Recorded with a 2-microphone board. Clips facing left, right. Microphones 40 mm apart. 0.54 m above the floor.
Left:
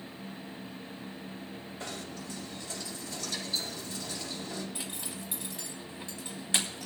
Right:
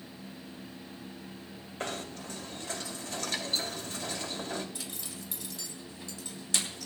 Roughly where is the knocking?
Right.